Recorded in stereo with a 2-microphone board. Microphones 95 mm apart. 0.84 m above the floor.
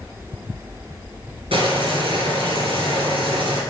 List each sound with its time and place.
1.5 s boiling: 75° right (ahead or behind), 2.5 m